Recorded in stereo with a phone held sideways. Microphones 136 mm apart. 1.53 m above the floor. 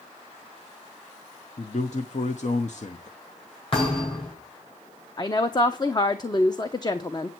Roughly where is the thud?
Left.